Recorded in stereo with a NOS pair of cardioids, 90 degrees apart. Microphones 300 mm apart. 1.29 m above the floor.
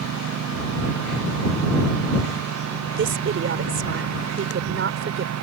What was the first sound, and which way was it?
A lawn mower, 60° right.